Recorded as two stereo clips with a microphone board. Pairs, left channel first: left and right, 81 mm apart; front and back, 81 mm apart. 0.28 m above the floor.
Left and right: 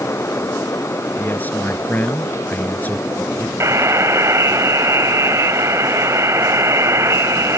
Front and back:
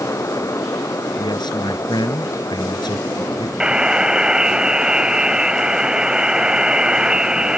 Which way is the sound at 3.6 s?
105° right.